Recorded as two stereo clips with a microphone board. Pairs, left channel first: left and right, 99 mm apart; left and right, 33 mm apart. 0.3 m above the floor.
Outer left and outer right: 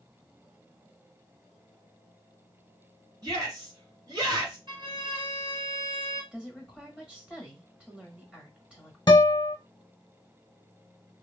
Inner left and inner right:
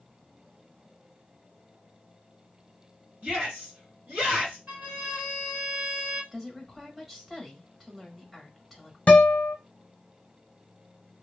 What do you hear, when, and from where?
3.2 s a shout: 40° right (ahead or behind), 1.6 m
4.7 s a violin: 50° right (ahead or behind), 2 m
6.3 s a woman speaking: 10° right (ahead or behind), 1.3 m
9.1 s a guitar: 45° left (ahead or behind), 0.8 m